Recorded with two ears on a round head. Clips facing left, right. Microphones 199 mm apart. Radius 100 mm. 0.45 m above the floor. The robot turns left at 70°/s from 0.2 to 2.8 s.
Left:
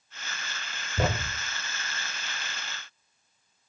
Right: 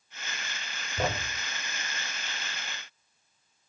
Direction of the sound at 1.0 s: 75° left (ahead or behind).